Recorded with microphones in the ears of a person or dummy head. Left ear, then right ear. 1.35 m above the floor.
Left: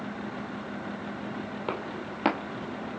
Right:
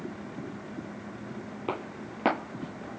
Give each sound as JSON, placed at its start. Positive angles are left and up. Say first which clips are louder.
{"t": 1.7, "sound": "footsteps", "louder": "even", "side_deg": 10, "distance_m": 1.5}